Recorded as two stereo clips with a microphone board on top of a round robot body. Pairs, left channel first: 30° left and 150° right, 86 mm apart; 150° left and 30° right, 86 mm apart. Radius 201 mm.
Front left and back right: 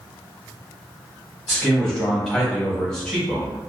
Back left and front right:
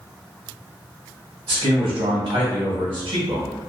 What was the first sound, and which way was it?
A man speaking, 55° right.